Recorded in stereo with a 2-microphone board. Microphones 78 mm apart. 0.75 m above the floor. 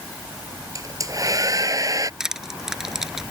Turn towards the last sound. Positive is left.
turn(degrees=-5)  # may be behind; listen again after turning